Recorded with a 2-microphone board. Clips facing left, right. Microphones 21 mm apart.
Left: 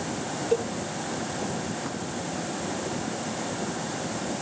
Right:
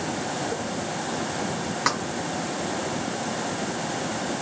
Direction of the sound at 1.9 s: 80° right.